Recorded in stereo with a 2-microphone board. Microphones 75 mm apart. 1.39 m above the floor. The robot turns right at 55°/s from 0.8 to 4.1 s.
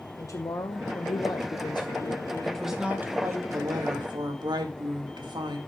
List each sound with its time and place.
0.2 s a woman speaking: 50° left, 0.9 m; by 2.6 s 145° left, 0.9 m
2.4 s a woman speaking: 175° left, 2 m; by 5.6 s 95° right, 2 m